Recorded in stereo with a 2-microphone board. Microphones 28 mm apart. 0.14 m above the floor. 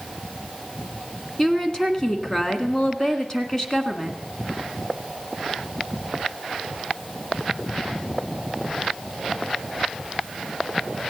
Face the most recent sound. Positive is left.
turn(degrees=20)  # may be behind; listen again after turning